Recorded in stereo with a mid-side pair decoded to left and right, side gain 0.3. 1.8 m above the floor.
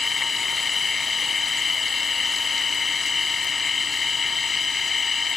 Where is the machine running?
55° left.